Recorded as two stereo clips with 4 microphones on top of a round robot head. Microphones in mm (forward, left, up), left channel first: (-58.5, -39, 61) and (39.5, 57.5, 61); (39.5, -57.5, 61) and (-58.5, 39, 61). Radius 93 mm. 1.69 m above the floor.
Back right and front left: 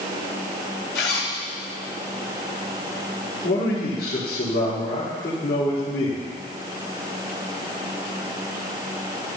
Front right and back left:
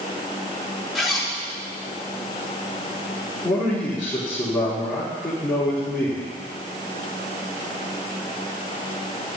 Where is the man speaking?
135° right, 4.5 m.